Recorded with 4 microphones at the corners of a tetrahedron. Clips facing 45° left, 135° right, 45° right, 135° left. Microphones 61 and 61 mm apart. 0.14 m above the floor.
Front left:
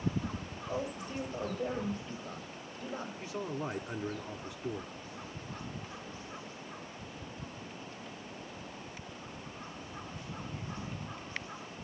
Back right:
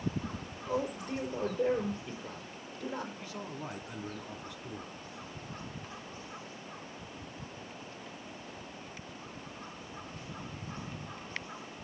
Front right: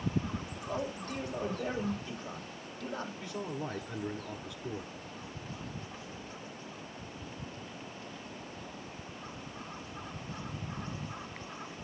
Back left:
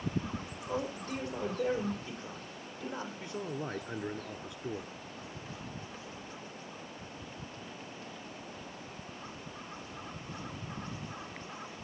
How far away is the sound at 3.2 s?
About 1.5 m.